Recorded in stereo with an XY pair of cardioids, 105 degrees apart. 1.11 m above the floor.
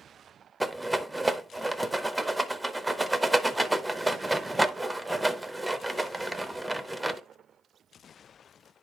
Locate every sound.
0.6 s a rattle: 5° right, 0.7 m